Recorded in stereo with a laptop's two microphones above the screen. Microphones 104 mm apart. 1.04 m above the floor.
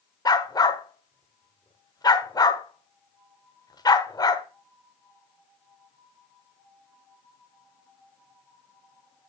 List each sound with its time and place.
0.2 s a dog barking: 40° left (ahead or behind), 1.2 m